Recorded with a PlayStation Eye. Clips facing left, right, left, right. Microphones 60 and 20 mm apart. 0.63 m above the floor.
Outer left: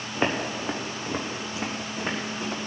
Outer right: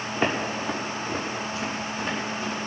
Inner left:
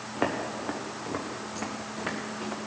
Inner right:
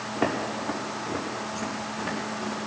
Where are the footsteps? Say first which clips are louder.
Even, inner right 2 dB; 15° left (ahead or behind), 3 m; by 2.6 s 70° left (ahead or behind), 4.5 m.